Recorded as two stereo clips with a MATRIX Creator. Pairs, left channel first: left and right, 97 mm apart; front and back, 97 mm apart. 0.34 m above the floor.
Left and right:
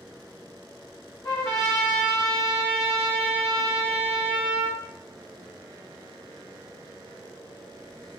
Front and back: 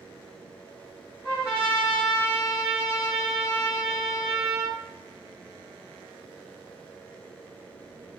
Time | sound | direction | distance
1.2 | a trumpet | 50° left | 1.3 m